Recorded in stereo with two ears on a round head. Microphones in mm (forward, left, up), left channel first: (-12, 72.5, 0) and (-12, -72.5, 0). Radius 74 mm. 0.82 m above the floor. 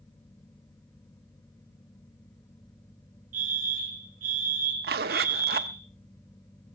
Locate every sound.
3.3 s a fire alarm: 55° right (ahead or behind), 3 m
4.8 s a zipper: 60° right (ahead or behind), 1.0 m